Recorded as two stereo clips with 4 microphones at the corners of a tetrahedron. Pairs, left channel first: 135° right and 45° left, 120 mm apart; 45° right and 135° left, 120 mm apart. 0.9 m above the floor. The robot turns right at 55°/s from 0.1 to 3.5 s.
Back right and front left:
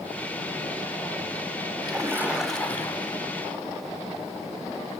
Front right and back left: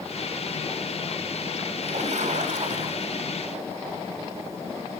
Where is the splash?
100° left, 3 m; by 3.2 s 175° left, 3 m.